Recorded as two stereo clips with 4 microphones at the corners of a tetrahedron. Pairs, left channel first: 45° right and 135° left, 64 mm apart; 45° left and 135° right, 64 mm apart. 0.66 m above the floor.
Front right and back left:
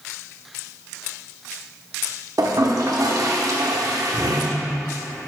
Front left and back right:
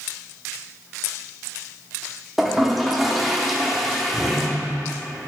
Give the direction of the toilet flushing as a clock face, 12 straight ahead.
7 o'clock.